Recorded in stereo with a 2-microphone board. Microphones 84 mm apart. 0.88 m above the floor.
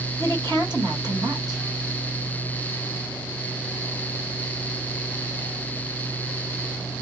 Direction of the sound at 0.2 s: 60° right (ahead or behind).